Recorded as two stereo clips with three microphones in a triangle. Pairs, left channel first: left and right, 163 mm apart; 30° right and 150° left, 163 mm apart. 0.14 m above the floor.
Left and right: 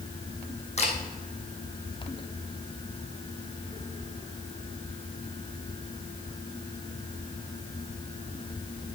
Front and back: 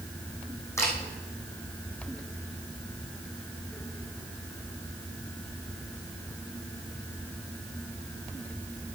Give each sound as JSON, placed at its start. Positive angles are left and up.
{"t": 0.8, "sound": "a camera shutter", "azimuth_deg": 45, "distance_m": 3.0}